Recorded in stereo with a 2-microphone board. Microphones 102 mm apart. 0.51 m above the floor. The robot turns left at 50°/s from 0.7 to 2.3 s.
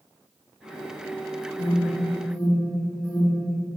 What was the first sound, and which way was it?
An alarm, 45° left (ahead or behind).